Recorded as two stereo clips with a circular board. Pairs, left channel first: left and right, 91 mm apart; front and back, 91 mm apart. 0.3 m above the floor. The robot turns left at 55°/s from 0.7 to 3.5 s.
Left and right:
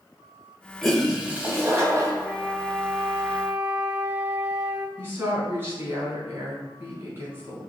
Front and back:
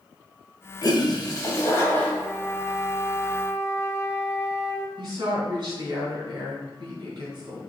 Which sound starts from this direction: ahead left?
A flute, at 2.2 s.